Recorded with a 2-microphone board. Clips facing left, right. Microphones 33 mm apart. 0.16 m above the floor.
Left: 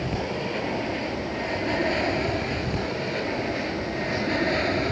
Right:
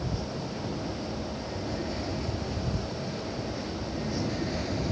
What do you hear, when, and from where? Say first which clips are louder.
0.0 s an aircraft: left 6 dB; 65° left (ahead or behind); by 4.9 s 50° left (ahead or behind)